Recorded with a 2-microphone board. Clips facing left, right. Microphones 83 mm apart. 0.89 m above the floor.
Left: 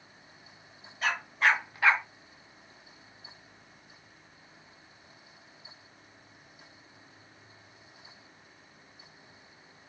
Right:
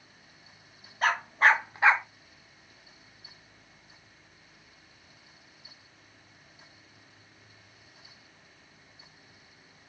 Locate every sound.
1.0 s a dog barking: 50° right (ahead or behind), 0.9 m; by 2.0 s 15° right (ahead or behind), 0.5 m